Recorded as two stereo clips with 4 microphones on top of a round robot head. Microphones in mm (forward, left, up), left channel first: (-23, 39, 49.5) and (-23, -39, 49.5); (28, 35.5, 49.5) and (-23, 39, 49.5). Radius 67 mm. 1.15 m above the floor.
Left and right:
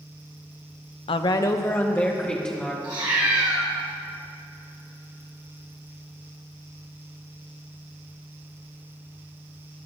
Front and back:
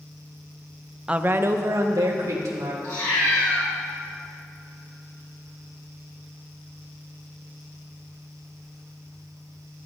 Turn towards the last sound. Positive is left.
turn(degrees=-45)